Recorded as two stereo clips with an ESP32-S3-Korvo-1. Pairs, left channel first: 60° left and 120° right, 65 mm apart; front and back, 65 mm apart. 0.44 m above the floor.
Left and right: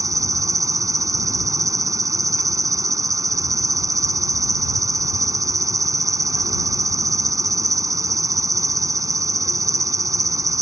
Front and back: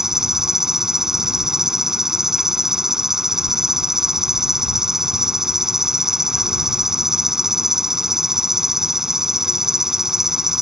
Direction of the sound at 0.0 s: 100° right.